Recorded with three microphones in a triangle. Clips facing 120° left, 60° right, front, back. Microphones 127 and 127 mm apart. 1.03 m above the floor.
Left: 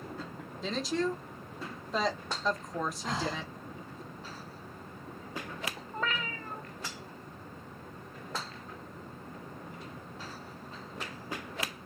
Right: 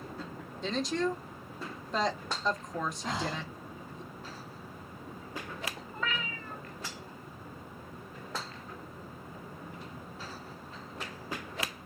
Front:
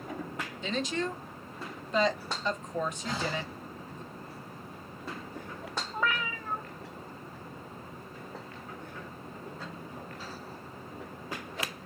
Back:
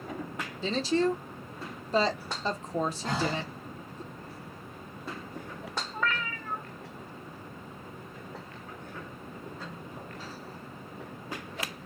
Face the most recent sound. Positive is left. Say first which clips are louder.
# left 3 dB, front 1 dB
turn(degrees=75)